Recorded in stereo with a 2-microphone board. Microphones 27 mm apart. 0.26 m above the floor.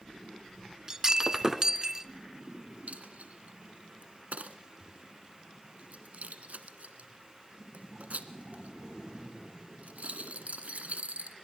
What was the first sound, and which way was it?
Breaking glass, 25° right (ahead or behind).